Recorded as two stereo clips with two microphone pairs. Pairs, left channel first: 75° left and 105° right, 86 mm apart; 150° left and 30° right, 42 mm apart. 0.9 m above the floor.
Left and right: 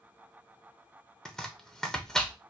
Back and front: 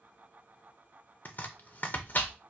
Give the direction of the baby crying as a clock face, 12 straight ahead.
No baby crying in this recording.